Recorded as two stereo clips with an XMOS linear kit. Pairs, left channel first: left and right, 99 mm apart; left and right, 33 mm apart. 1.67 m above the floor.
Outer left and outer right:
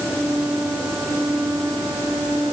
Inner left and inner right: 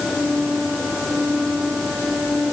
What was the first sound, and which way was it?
Only background noise.